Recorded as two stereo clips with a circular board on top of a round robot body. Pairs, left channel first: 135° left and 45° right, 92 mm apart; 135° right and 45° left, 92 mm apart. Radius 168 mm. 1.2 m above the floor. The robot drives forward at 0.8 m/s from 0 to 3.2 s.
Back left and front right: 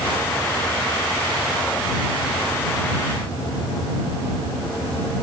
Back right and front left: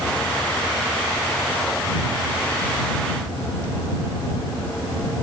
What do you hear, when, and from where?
Only background noise.